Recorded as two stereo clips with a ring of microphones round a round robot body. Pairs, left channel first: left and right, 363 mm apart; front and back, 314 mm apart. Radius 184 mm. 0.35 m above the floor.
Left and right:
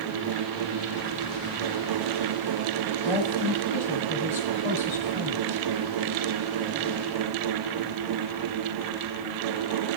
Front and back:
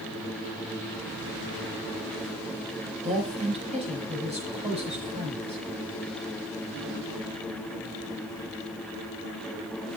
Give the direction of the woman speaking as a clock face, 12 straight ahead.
8 o'clock.